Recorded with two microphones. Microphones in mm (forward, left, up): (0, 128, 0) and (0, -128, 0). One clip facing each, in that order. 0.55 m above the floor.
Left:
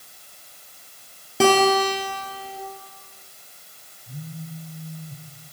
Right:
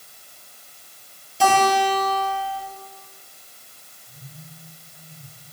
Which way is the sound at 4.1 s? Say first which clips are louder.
Left 10 dB; 70° left (ahead or behind).